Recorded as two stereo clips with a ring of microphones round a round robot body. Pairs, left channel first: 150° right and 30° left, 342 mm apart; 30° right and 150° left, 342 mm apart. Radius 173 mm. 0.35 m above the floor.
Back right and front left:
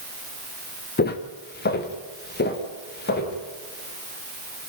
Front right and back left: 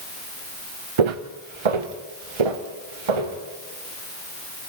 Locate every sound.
1.0 s footsteps: 145° left, 1.9 m